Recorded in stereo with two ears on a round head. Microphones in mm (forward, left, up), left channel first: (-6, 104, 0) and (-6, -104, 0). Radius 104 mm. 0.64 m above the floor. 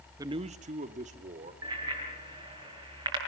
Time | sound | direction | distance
0.2 | a man speaking | 15° right (ahead or behind) | 0.6 m
1.6 | a bicycle bell | 15° right (ahead or behind) | 7 m